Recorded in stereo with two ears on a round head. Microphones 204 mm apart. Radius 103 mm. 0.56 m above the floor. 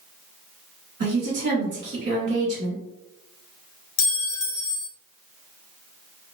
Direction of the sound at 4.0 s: 75° left (ahead or behind).